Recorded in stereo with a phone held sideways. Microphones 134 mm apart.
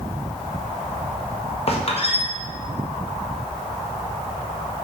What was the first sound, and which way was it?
A squeak, 50° left (ahead or behind).